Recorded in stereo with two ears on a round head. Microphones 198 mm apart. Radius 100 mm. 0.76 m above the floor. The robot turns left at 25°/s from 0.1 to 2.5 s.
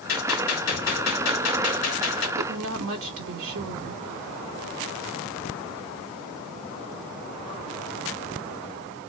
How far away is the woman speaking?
About 1.9 m.